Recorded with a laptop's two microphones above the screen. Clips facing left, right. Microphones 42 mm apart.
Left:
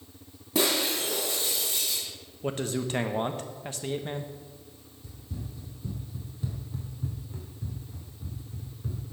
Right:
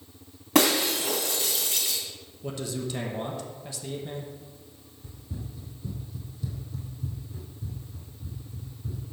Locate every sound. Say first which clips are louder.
0.6 s breaking glass: right 4 dB; 75° right (ahead or behind), 2.5 m
2.4 s a man speaking: left 3 dB; 45° left (ahead or behind), 0.9 m
5.0 s running footsteps: right 1 dB; 30° right (ahead or behind), 2 m; by 9.0 s 65° left (ahead or behind), 5 m